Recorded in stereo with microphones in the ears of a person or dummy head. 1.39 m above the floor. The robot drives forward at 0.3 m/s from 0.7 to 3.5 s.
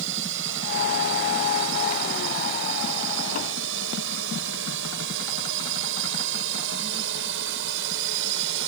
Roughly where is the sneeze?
I don't hear a sneeze.